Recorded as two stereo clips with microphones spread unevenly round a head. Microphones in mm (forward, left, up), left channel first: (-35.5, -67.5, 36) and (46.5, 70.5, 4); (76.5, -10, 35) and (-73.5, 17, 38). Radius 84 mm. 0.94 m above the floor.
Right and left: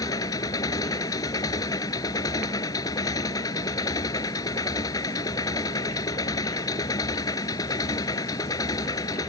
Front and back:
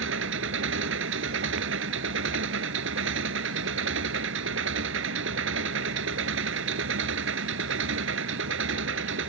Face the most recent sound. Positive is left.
turn(degrees=170)